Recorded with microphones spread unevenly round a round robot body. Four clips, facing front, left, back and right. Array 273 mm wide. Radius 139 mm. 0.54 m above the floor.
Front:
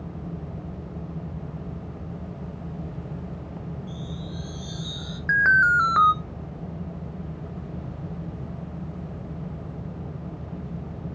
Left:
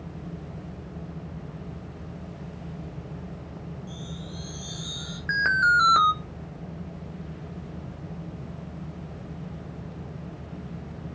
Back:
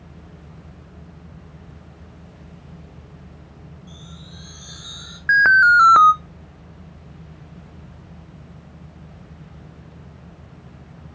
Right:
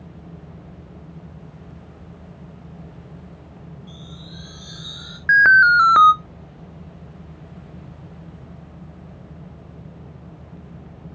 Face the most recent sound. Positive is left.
turn(degrees=-125)